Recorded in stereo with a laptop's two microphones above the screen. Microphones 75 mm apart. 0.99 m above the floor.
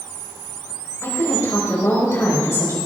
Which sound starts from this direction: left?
A woman speaking, at 1.0 s.